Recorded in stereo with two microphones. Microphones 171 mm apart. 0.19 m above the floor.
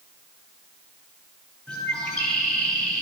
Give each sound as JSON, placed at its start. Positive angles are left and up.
{"t": 1.7, "sound": "a bird", "side_deg": 5, "distance_m": 3.0}